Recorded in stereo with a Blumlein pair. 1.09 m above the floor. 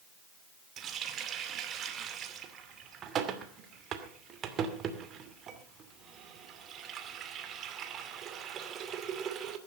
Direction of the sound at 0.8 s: 30° right.